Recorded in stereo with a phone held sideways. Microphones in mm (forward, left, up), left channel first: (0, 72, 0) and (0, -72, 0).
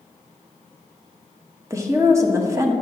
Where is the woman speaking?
20° right (ahead or behind), 1.0 m.